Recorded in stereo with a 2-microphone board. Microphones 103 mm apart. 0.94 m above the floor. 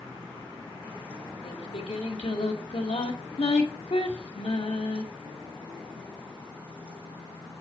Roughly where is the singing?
Left.